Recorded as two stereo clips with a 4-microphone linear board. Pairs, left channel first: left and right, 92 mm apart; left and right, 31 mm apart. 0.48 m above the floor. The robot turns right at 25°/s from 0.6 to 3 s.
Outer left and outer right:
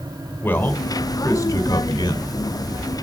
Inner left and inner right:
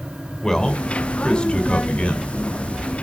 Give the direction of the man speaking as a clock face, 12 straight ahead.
11 o'clock.